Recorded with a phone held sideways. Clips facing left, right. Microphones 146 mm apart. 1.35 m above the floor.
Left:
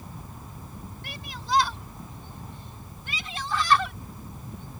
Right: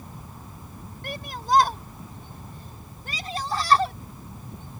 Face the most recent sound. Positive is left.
turn(degrees=-35)  # may be behind; listen again after turning